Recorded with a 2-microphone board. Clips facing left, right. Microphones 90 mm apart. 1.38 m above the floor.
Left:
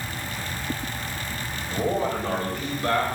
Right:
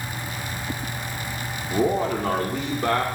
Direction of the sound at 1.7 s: 60° right (ahead or behind).